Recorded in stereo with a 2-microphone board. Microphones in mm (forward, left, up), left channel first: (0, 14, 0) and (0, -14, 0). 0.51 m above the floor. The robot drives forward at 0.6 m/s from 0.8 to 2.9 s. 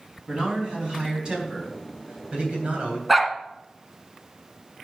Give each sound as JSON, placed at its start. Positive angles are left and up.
{"t": 0.3, "sound": "a man speaking", "side_deg": -25, "distance_m": 4.0}
{"t": 3.1, "sound": "a dog barking", "side_deg": -10, "distance_m": 1.3}